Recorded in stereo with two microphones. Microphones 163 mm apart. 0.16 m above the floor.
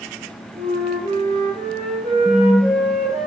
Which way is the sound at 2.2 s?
Centre (ahead or behind).